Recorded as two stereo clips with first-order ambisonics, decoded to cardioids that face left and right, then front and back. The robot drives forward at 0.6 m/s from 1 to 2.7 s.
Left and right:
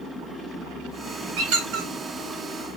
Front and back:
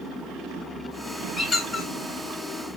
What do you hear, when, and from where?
1.4 s a squeak: 80° right, 2.0 m; by 1.9 s 90° right, 1.9 m